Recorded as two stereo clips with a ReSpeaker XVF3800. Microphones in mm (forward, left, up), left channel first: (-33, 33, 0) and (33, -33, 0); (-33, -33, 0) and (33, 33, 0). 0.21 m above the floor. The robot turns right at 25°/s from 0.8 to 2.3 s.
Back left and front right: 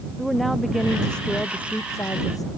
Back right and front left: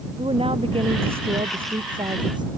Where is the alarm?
No alarm in this recording.